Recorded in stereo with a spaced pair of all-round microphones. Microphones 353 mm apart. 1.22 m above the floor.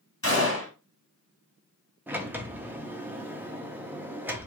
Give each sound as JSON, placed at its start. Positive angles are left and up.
{"t": 0.2, "sound": "a gunshot", "side_deg": 40, "distance_m": 1.9}
{"t": 2.1, "sound": "a sliding door", "side_deg": -5, "distance_m": 0.6}